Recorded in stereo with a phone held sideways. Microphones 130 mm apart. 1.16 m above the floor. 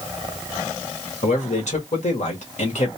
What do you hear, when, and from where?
1.2 s a man speaking: 65° left (ahead or behind), 1.9 m